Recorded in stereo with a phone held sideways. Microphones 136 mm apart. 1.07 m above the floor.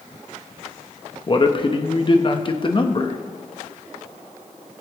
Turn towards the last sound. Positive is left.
turn(degrees=35)  # may be behind; listen again after turning